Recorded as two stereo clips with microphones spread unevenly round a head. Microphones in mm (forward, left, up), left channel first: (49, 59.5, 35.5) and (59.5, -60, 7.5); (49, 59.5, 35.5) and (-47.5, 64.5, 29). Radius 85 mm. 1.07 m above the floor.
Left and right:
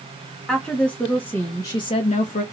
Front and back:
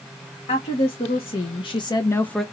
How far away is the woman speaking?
About 1.5 m.